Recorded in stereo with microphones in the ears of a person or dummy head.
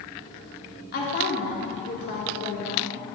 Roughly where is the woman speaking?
Left.